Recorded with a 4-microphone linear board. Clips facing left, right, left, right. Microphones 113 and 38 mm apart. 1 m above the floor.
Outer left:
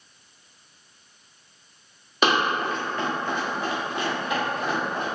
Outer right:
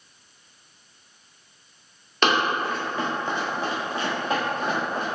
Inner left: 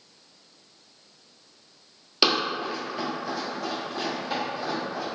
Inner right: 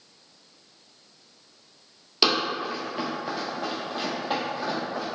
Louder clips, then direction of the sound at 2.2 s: Even, even; 10° left (ahead or behind).